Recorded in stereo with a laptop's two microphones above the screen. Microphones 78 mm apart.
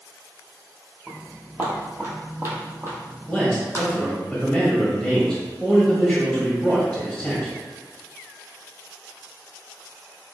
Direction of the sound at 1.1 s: 20° right (ahead or behind).